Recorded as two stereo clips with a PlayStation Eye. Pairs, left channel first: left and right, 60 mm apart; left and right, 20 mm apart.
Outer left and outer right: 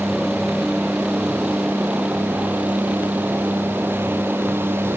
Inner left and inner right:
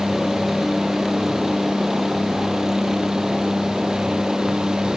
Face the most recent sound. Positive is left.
turn(degrees=-30)  # may be behind; listen again after turning